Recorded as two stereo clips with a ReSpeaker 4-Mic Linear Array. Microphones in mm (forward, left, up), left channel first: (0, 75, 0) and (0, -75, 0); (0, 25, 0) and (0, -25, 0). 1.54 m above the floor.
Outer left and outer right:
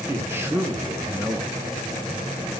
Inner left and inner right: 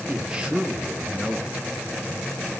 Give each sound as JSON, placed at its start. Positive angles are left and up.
{"t": 0.1, "sound": "a man speaking", "side_deg": -15, "distance_m": 1.7}